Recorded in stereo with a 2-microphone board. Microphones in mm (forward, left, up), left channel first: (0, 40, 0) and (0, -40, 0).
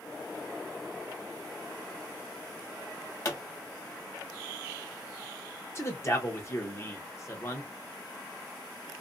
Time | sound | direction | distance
3.2 | a pop | 40° left (ahead or behind) | 1.2 m
5.8 | a man speaking | 35° left (ahead or behind) | 0.8 m